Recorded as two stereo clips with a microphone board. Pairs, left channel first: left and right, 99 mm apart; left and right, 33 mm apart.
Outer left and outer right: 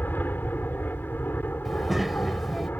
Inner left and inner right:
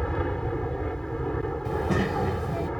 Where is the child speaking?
Centre (ahead or behind).